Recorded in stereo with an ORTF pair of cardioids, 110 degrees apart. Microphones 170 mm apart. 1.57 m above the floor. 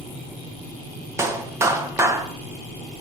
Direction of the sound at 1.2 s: 15° right.